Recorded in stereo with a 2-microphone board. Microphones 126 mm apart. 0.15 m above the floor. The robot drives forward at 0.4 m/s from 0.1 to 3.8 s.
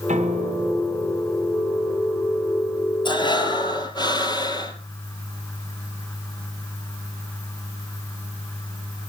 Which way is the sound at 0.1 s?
75° right (ahead or behind).